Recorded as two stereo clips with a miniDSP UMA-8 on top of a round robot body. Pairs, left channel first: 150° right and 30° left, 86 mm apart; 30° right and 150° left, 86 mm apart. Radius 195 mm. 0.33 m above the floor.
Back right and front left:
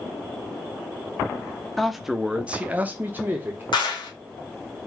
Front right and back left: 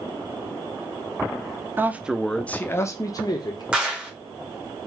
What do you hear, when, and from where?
1.8 s a man speaking: 125° left, 0.9 m; by 3.6 s 30° right, 1.3 m
3.7 s a clap: 135° right, 1.5 m